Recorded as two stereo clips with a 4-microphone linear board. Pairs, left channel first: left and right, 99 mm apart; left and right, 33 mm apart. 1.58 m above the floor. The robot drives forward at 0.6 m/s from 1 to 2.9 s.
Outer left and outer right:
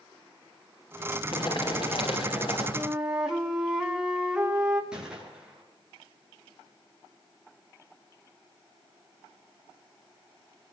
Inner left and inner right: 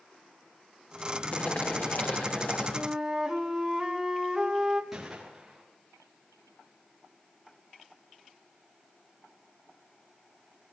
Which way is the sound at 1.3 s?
60° left (ahead or behind).